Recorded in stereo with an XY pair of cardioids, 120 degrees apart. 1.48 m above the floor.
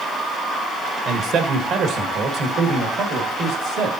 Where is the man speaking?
50° right, 1.5 m; by 3.9 s 70° right, 3 m.